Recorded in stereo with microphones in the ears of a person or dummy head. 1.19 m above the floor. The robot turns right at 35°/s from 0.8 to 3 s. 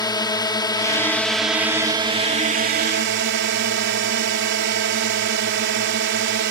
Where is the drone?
160° left; by 6.5 s 125° right.